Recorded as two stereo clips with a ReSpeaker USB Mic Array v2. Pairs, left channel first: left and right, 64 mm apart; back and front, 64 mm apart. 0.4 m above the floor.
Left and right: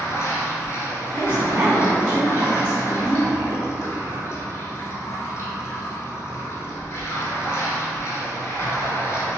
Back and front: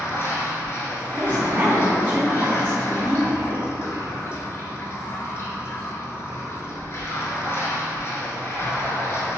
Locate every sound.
0.0 s running water: 135° left, 0.8 m
1.1 s a woman speaking: 30° right, 1.0 m